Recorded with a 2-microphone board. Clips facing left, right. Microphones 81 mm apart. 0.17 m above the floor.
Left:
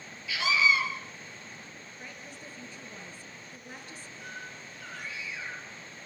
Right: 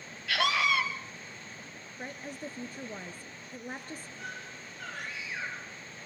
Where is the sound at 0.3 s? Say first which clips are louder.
Left 1 dB; 65° right (ahead or behind), 2.5 m.